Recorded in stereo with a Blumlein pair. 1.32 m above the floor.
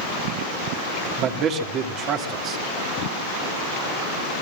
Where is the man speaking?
35° right, 2.5 m.